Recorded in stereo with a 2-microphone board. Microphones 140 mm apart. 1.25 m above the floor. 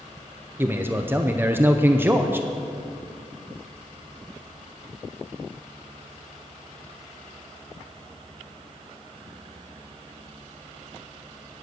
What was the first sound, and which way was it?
A man speaking, 15° right (ahead or behind).